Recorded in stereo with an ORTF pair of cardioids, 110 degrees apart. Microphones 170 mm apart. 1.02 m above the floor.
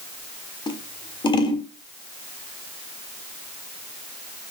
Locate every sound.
0.7 s scissors: 30° left, 1.7 m